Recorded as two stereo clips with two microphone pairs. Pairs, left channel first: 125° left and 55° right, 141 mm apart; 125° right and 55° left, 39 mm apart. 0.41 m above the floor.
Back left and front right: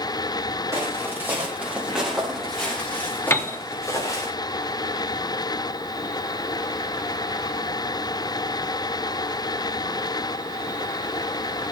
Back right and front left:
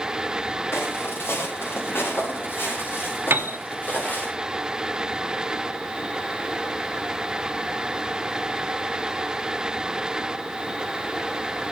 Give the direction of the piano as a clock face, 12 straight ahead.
10 o'clock.